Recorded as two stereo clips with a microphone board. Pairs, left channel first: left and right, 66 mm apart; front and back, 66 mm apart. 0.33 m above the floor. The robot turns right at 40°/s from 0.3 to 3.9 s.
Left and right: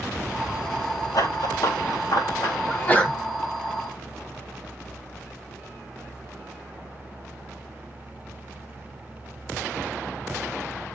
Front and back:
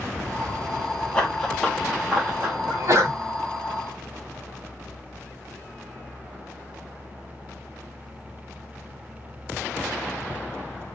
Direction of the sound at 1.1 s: 75° left.